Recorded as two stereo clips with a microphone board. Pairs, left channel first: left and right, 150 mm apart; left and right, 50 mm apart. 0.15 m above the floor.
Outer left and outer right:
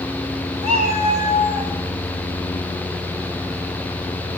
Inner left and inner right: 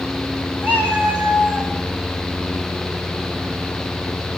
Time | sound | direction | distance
0.6 | a cat meowing | 45° right (ahead or behind) | 7 m